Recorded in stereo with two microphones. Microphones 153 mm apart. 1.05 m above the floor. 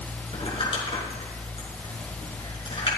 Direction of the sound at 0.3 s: 35° left (ahead or behind).